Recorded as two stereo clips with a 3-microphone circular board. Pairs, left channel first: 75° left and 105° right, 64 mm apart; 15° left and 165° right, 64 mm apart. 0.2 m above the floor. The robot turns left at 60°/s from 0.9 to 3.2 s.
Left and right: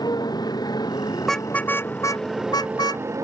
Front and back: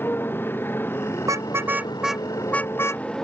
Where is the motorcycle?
70° left; by 3.2 s 65° right.